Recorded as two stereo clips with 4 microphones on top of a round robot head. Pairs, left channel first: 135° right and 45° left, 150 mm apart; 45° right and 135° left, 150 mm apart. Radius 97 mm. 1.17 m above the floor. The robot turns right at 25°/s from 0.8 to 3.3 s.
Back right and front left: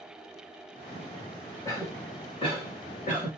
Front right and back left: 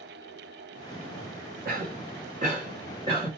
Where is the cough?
150° left, 1.4 m; by 3.3 s 165° right, 1.4 m.